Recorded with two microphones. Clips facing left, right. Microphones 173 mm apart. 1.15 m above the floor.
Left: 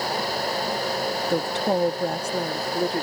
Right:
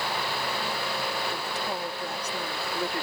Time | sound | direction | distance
1.3 | a woman speaking | 80° left | ?